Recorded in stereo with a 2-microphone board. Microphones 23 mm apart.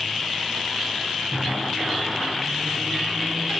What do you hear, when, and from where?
1.3 s a microwave: 75° right (ahead or behind), 2.5 m